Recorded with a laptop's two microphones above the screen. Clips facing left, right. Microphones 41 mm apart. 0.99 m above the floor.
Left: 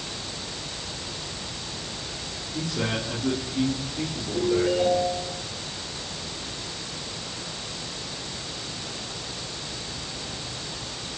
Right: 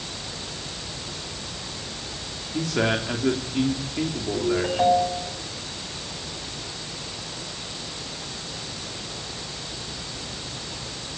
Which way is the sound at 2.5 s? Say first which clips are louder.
Right 5 dB; 75° right (ahead or behind).